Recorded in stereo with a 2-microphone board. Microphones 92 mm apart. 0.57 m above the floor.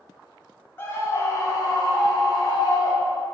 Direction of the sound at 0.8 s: 25° left (ahead or behind).